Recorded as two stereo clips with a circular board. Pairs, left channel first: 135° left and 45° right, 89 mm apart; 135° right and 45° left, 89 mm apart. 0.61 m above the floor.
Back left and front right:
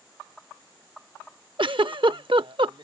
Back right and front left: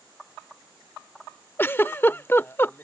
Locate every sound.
1.6 s a giggle: 70° right